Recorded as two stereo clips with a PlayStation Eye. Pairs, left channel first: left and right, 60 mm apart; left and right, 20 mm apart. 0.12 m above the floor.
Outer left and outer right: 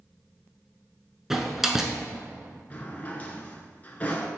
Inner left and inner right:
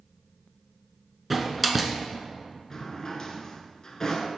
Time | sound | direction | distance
1.3 | a door slam | 5° right (ahead or behind) | 0.9 m
2.7 | a drawer | 25° left (ahead or behind) | 0.8 m